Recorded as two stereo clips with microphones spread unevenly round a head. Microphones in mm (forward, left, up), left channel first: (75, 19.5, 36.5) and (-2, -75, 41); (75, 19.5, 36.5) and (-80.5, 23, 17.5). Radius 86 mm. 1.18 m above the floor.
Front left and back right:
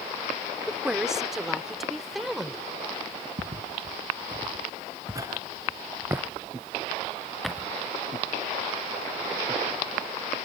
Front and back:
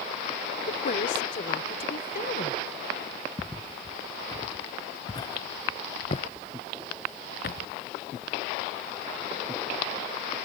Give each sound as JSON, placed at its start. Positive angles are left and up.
{"t": 0.7, "sound": "a woman speaking", "azimuth_deg": -45}
{"t": 3.4, "sound": "footsteps", "azimuth_deg": -90}